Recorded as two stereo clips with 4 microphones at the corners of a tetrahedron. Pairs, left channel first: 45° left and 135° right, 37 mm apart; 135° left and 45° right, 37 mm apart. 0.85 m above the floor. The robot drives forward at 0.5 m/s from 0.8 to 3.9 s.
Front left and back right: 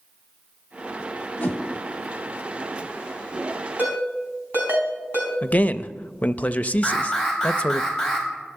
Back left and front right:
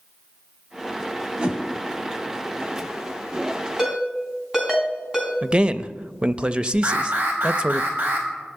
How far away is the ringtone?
About 4 m.